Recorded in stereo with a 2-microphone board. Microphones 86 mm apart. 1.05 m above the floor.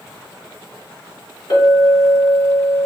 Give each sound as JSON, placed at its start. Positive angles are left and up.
{"t": 1.5, "sound": "a clink", "side_deg": 65, "distance_m": 1.6}